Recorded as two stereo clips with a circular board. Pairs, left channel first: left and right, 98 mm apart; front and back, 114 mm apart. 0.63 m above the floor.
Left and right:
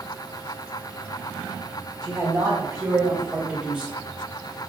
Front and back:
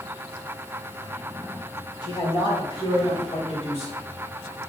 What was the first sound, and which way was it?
A man speaking, 50° right.